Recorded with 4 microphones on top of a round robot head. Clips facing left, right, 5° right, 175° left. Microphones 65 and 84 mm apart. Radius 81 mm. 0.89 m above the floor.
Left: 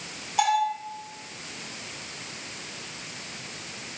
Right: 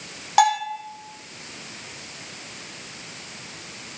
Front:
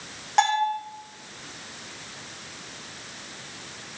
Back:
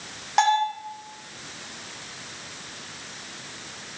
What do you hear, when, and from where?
0.4 s a bell: 95° right, 6.5 m